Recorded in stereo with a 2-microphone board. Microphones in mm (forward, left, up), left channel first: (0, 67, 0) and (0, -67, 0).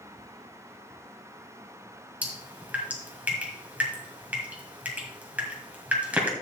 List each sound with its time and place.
2.2 s dripping: 10° right (ahead or behind), 1.9 m